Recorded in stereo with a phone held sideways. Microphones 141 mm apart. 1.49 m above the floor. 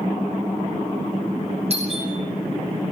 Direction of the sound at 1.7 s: 50° right (ahead or behind).